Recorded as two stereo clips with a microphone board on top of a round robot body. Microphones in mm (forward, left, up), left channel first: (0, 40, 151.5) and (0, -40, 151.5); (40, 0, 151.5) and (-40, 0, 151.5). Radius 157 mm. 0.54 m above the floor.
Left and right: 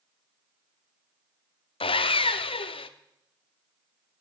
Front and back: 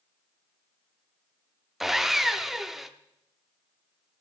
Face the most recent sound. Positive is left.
turn(degrees=95)